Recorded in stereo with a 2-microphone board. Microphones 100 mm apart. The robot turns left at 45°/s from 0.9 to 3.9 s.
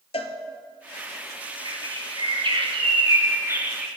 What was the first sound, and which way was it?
A cowbell, 85° left.